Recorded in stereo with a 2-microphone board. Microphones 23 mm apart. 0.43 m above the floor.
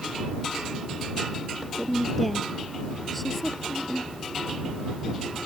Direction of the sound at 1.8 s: 5° left (ahead or behind).